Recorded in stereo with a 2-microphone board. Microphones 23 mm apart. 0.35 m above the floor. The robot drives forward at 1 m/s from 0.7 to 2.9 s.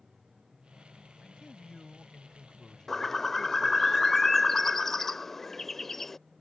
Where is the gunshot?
No gunshot in this recording.